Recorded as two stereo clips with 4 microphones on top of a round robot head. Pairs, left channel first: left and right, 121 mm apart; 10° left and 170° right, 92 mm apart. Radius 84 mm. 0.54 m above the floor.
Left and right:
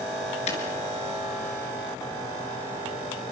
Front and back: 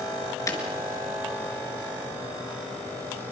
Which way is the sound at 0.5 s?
60° left.